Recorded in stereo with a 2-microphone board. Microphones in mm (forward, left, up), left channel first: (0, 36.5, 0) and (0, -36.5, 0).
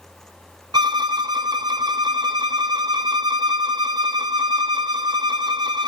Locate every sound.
0.7 s a violin: 70° right (ahead or behind), 0.7 m